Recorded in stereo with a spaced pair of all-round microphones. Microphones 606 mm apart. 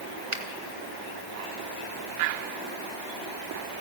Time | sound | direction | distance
0.3 | a finger snap | 55° right (ahead or behind) | 1.8 m